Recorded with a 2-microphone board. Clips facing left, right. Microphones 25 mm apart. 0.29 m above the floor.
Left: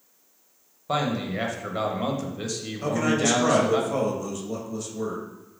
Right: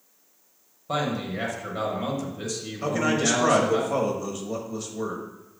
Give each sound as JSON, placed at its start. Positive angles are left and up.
{"t": 0.9, "sound": "a man speaking", "side_deg": 15, "distance_m": 1.0}
{"t": 2.8, "sound": "a man speaking", "side_deg": -15, "distance_m": 1.0}